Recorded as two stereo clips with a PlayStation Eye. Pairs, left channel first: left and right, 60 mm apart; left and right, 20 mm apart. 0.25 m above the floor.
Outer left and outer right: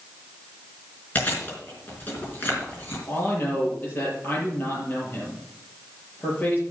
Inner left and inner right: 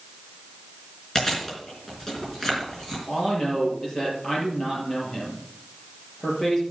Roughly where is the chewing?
Left.